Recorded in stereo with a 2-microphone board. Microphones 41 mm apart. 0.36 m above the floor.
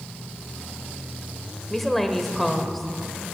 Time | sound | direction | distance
1.7 | a woman speaking | 5° left (ahead or behind) | 1.4 m